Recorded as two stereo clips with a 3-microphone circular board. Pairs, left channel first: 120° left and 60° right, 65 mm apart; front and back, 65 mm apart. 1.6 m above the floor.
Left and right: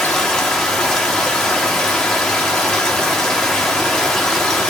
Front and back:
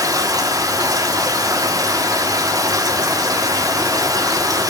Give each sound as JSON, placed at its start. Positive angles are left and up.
{"t": 0.0, "sound": "running water", "azimuth_deg": -155, "distance_m": 4.0}